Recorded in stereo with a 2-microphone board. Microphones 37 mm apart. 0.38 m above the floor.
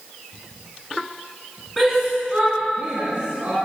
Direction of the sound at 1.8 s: 5° left (ahead or behind).